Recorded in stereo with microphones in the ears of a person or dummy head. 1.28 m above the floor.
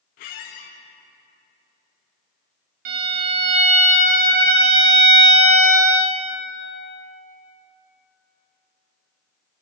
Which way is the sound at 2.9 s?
50° right (ahead or behind).